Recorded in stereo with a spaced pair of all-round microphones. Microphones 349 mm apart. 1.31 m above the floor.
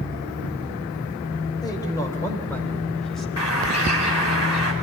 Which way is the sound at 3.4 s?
50° left (ahead or behind).